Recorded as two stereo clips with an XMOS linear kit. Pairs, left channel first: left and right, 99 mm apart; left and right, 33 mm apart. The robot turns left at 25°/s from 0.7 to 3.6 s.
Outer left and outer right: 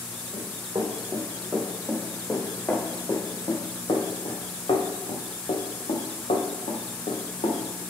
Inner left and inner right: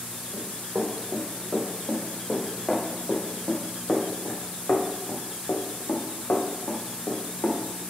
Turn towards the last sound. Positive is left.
turn(degrees=70)  # may be behind; listen again after turning